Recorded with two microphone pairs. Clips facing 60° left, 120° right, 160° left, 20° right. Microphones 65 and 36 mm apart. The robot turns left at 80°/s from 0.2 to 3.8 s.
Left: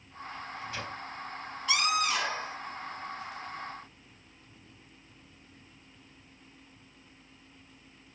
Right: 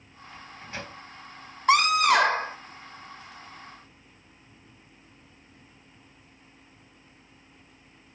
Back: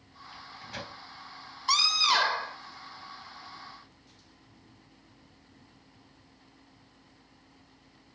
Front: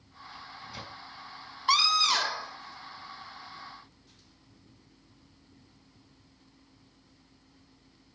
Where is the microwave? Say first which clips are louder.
Left 1 dB, back 2 dB; 150° right, 3.5 m; by 1.0 s 160° left, 3.5 m.